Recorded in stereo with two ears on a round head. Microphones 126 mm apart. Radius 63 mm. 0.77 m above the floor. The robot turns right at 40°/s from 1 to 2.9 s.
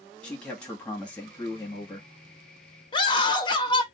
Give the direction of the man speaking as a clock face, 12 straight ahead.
12 o'clock.